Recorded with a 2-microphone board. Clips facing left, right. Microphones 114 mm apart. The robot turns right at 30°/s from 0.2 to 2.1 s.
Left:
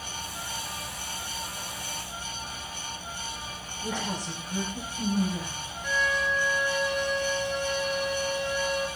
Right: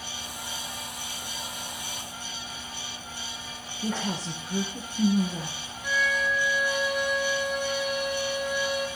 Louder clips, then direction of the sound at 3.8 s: Right 2 dB; 45° right (ahead or behind).